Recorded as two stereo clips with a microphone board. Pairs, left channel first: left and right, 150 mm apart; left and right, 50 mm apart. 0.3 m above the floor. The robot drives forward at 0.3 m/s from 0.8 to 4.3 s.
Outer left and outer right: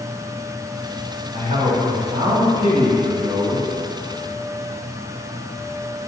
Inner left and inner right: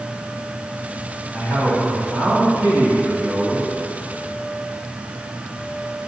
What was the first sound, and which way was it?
A man speaking, 55° right (ahead or behind).